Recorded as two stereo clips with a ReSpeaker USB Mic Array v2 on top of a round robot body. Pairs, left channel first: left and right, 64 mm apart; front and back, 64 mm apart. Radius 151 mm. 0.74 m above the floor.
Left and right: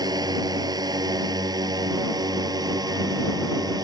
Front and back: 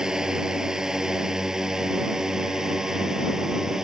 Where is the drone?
100° right.